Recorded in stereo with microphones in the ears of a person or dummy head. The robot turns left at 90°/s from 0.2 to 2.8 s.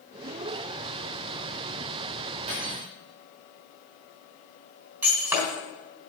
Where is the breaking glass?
15° right (ahead or behind), 4 m.